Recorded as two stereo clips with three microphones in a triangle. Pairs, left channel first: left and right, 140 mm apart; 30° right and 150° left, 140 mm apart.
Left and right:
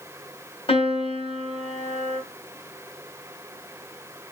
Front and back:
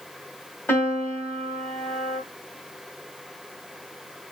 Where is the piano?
45° left, 2.5 m.